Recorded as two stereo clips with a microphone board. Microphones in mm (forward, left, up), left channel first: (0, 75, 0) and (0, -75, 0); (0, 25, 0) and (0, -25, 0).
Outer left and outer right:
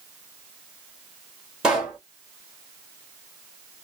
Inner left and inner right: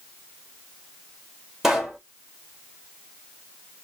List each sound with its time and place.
1.6 s a pop: 5° right (ahead or behind), 2 m